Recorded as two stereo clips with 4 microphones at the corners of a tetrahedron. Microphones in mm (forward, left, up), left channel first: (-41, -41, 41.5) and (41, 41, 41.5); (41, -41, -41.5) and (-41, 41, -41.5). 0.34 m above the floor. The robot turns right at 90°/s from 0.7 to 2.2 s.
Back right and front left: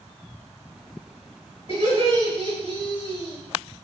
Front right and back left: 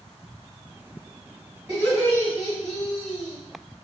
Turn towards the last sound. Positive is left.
turn(degrees=-120)